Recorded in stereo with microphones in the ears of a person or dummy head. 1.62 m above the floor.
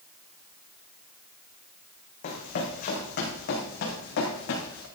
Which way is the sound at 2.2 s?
45° left (ahead or behind).